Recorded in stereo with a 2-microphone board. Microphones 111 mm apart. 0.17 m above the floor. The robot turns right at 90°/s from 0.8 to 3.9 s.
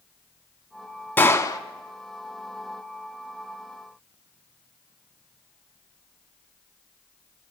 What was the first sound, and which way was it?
A gunshot, 30° left.